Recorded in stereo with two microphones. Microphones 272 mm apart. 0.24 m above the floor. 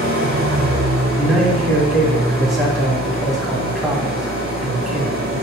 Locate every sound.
0.0 s an engine running: 35° right (ahead or behind), 2.5 m
1.2 s a man speaking: centre (ahead or behind), 2 m